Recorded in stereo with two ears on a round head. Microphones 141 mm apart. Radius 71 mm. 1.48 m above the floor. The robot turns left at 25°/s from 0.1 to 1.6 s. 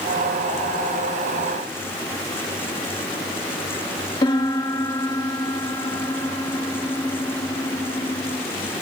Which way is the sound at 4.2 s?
30° left (ahead or behind).